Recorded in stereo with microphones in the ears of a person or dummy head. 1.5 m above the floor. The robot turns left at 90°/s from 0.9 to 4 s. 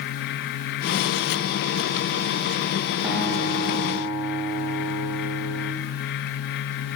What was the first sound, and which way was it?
A guitar, 170° right.